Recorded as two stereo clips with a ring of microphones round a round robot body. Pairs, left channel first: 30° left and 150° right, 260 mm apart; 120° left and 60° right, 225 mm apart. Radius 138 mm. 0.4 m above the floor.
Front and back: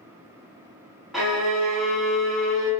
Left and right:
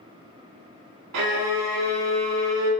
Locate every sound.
1.1 s a violin: 60° right, 1.0 m